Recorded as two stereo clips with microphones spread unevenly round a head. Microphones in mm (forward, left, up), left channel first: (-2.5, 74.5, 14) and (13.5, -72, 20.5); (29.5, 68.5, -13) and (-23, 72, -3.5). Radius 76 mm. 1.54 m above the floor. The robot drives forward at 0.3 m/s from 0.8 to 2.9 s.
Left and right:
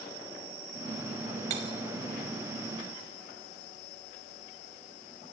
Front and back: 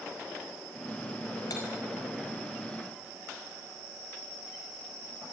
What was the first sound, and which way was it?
Cutlery clinking, 35° right.